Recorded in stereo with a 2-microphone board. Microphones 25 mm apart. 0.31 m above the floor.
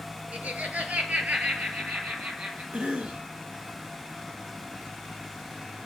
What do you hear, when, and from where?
0.3 s laughter: 80° right, 4 m; by 2.6 s 70° right (ahead or behind), 6.5 m
2.7 s a cough: 60° right (ahead or behind), 3 m